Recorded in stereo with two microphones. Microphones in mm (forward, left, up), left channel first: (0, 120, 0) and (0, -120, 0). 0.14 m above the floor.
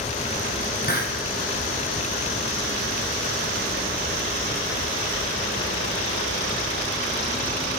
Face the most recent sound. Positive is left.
turn(degrees=40)  # may be behind; listen again after turning